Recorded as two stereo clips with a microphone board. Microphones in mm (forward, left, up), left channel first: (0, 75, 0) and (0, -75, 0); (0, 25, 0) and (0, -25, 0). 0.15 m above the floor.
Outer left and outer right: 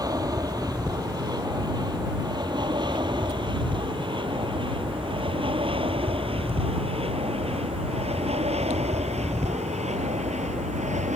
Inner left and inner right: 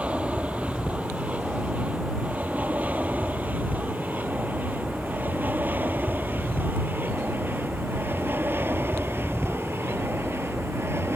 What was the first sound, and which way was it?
An aircraft, 25° right (ahead or behind).